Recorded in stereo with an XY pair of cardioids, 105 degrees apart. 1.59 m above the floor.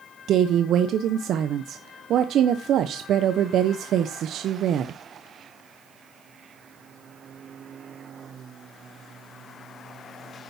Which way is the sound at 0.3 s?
65° right.